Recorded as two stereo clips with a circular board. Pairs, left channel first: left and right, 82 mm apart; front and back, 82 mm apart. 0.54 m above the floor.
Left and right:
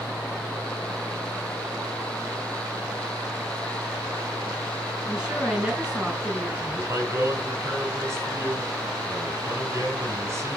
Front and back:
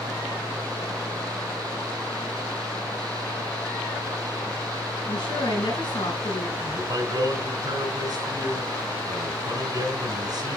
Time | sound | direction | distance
5.0 | a woman speaking | 10° right | 6.5 m
6.6 | a man speaking | 145° right | 4.5 m